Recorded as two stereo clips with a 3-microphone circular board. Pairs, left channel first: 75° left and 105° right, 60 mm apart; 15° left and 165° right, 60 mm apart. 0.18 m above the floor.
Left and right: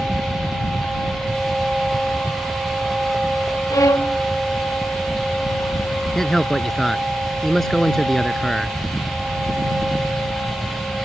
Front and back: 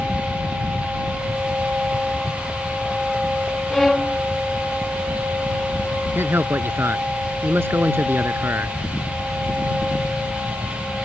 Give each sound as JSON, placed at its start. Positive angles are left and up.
{"t": 3.7, "sound": "a violin", "azimuth_deg": 100}
{"t": 6.2, "sound": "a man speaking", "azimuth_deg": 155}